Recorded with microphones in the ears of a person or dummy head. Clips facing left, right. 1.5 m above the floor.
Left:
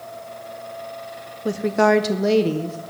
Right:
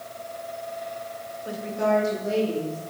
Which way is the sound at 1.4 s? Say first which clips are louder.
Left 7 dB; 55° left (ahead or behind).